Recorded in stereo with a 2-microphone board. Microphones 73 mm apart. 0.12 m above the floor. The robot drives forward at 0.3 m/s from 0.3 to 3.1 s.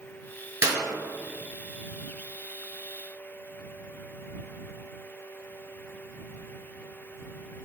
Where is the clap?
30° right (ahead or behind), 1.3 m.